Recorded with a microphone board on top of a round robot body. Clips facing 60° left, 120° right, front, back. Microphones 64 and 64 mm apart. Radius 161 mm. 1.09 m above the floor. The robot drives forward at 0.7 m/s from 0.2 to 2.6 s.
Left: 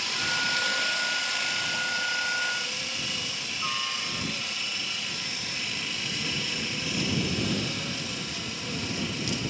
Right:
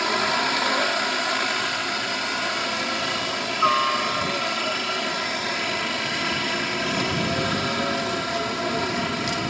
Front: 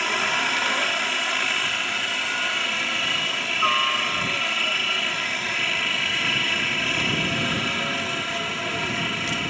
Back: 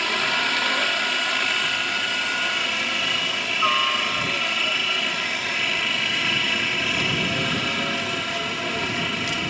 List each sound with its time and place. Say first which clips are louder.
0.0 s a helicopter: right 7 dB, even; 85° right; by 9.5 s 90° right